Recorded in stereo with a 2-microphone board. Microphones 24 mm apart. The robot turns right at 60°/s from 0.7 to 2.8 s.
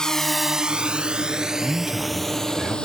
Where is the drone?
30° left (ahead or behind); by 2.9 s 40° left (ahead or behind).